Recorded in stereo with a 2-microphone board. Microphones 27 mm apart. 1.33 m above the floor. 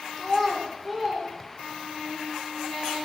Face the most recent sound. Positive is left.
turn(degrees=-15)  # may be behind; listen again after turning